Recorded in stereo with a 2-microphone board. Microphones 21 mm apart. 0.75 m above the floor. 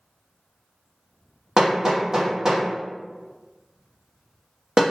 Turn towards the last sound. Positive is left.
turn(degrees=-30)  # may be behind; listen again after turning